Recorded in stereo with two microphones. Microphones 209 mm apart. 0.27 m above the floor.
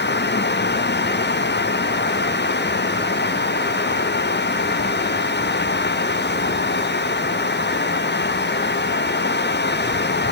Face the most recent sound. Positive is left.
No sound to turn to.